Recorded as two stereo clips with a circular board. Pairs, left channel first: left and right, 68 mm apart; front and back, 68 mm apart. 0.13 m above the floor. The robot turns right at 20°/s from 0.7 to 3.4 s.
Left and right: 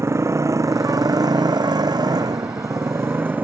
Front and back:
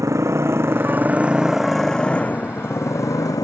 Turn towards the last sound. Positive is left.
turn(degrees=-30)